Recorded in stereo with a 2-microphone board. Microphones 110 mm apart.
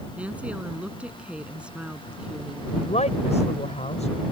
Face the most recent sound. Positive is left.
turn(degrees=85)